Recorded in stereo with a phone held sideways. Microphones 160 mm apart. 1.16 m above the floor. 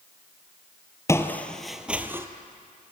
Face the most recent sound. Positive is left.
turn(degrees=-15)  # may be behind; listen again after turning